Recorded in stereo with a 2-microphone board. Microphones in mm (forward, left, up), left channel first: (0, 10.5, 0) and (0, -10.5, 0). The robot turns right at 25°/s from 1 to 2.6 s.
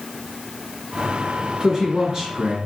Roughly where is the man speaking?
Right.